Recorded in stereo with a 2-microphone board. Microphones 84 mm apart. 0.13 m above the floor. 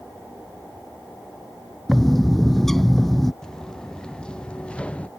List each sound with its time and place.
1.9 s a bird: 5° left (ahead or behind)
3.4 s footsteps: 10° left (ahead or behind); by 5.1 s 15° left (ahead or behind)